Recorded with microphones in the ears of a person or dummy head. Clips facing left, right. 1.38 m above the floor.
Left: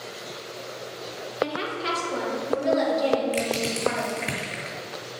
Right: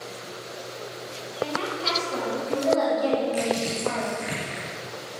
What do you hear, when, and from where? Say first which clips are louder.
1.4 s a woman speaking: left 1 dB; 15° left (ahead or behind), 2 m
3.3 s crushing: right 1 dB; 45° left (ahead or behind), 3 m